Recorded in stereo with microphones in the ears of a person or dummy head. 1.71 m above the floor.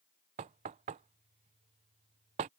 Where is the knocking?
35° right (ahead or behind).